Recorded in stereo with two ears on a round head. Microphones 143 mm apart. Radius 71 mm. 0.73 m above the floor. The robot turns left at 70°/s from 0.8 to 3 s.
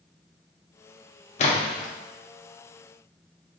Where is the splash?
45° left (ahead or behind), 0.8 m; by 1.9 s 15° left (ahead or behind), 0.8 m.